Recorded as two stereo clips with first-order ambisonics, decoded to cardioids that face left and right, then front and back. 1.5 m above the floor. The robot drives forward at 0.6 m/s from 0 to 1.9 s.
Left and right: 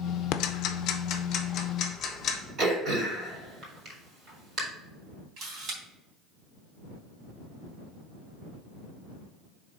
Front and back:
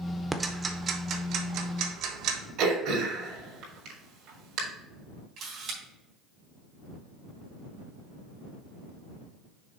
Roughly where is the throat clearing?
Behind right.